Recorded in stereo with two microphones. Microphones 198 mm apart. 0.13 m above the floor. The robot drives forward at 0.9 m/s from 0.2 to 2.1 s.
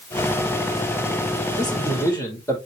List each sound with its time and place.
1.6 s a man speaking: 15° left (ahead or behind), 5.5 m